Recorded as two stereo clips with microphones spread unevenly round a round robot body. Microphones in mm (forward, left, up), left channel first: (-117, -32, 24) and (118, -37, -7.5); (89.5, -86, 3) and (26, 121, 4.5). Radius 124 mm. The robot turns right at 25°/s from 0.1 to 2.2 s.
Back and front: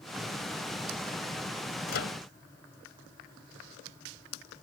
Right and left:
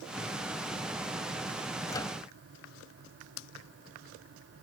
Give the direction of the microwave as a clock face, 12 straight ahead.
5 o'clock.